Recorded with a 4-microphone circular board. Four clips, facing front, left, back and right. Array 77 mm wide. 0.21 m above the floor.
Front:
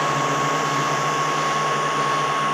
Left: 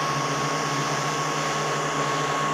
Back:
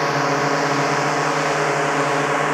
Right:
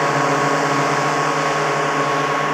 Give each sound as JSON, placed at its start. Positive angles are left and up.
{"t": 0.0, "sound": "a drone", "azimuth_deg": -120}